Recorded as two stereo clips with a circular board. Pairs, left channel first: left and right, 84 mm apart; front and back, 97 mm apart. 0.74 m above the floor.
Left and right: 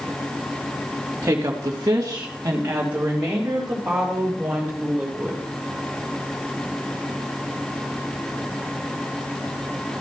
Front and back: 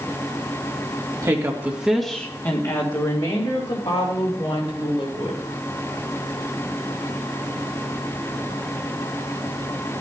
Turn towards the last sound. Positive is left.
turn(degrees=-5)